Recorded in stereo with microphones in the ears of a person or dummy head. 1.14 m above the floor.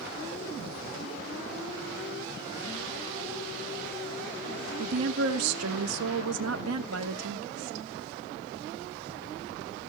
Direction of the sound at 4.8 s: 85° right.